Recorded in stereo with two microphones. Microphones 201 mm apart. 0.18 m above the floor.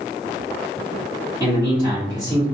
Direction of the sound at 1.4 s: 20° right (ahead or behind).